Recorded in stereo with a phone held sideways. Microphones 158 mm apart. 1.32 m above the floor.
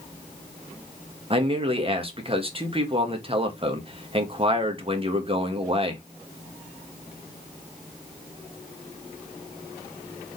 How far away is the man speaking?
About 1.8 m.